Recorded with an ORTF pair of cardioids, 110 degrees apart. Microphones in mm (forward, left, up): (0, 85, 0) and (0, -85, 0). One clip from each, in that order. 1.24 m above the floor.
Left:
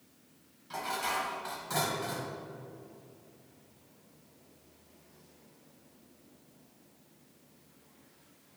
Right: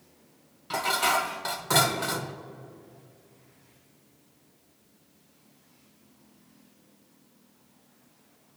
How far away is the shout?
No shout in this recording.